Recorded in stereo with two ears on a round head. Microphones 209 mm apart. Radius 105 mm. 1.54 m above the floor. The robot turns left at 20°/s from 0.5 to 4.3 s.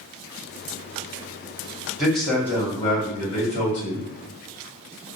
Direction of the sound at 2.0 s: Straight behind.